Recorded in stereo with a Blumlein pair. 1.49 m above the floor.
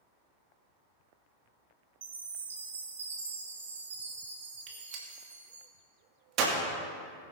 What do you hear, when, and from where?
2.0 s a chime: 65° right, 2 m
4.7 s a gunshot: 35° right, 2 m